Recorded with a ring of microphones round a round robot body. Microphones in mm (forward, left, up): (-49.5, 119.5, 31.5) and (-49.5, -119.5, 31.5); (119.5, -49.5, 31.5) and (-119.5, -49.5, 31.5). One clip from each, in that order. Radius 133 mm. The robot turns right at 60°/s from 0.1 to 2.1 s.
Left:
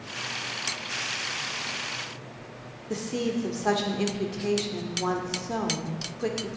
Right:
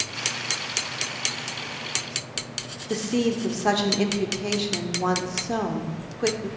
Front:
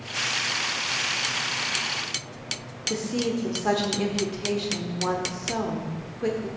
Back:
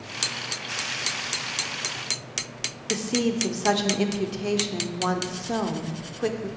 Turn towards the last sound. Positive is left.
turn(degrees=-150)